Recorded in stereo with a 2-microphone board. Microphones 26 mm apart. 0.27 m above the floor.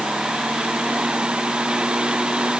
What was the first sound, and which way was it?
Only background noise.